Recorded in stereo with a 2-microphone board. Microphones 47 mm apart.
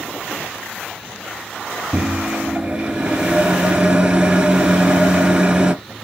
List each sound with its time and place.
1.9 s a microwave: 20° right (ahead or behind), 0.9 m